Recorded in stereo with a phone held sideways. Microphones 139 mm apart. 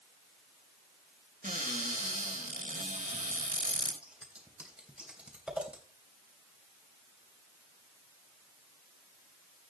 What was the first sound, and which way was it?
A cupboard door, 75° right (ahead or behind).